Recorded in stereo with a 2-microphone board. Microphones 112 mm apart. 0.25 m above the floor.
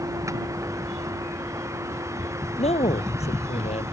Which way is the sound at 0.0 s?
30° right (ahead or behind).